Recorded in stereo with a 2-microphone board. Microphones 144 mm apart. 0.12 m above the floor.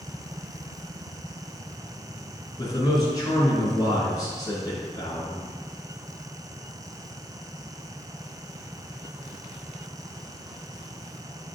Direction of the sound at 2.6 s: 25° left (ahead or behind).